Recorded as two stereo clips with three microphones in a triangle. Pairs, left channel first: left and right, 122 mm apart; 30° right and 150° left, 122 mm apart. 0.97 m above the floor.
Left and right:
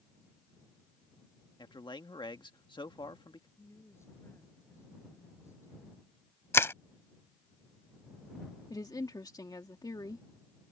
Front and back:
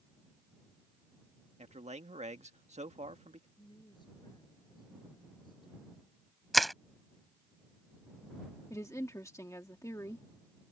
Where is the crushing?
60° left.